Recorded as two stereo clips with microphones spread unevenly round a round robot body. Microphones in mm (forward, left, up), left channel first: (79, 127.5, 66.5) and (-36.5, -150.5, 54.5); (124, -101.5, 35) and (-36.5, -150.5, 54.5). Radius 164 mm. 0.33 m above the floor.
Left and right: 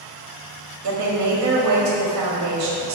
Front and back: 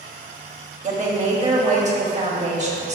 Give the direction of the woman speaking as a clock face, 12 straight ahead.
4 o'clock.